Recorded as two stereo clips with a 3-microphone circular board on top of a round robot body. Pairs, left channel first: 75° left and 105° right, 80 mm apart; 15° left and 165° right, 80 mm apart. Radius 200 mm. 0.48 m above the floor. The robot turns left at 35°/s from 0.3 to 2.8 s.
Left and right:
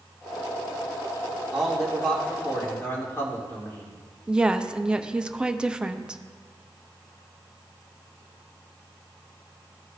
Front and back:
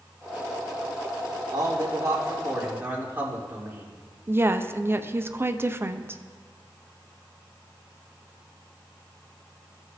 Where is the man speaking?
175° left, 2.5 m; by 3.9 s 130° left, 2.5 m.